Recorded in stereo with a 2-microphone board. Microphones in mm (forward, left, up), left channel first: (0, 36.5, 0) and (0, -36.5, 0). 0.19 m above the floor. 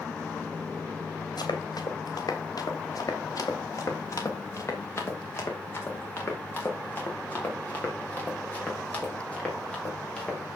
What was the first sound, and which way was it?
Running footsteps, 65° left (ahead or behind).